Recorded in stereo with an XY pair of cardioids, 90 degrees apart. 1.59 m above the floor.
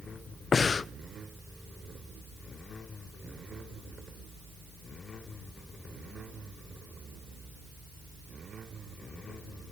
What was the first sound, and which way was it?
Breathing, 40° left.